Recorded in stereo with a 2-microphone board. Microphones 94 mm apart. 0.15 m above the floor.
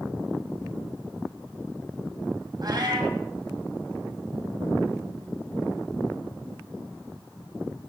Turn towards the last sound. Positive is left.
turn(degrees=-45)  # may be behind; listen again after turning